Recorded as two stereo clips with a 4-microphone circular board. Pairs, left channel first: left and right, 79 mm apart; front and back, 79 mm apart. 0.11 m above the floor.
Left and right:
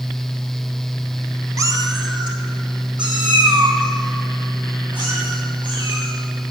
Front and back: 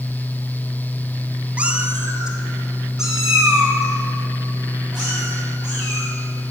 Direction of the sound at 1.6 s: 115° right.